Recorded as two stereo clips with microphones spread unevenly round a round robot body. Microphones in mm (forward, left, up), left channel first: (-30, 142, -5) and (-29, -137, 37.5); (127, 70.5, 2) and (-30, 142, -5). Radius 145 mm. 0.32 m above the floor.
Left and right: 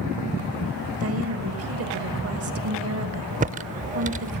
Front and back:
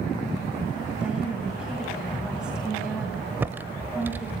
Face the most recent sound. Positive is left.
turn(degrees=-140)